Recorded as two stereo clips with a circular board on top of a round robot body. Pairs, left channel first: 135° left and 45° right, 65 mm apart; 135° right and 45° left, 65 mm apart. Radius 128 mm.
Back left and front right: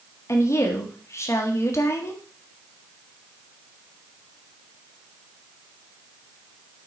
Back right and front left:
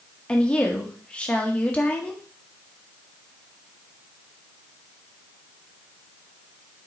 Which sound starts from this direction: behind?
A woman speaking, at 0.3 s.